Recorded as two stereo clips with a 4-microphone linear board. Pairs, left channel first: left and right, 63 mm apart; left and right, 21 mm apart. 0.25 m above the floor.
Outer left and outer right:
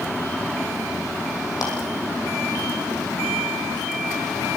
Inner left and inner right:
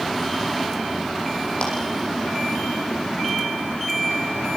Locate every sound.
1.6 s a clap: 65° left (ahead or behind), 7.5 m